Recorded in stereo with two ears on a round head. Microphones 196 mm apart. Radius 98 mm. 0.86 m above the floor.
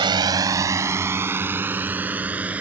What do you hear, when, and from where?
0.0 s a drone: 20° right (ahead or behind); by 2.6 s 5° right (ahead or behind)